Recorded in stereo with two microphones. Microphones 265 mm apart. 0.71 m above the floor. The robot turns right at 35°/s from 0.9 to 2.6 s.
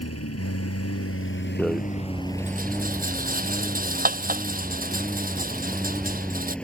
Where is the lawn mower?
115° left; by 6.7 s 175° left.